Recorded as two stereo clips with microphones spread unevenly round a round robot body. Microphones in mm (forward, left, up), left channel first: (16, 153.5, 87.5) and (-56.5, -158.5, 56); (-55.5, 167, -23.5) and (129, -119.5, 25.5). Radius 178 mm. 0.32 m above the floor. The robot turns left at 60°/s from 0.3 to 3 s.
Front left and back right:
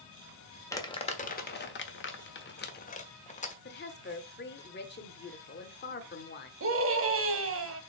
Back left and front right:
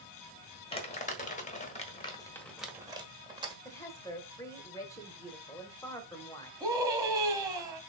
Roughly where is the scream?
Behind right.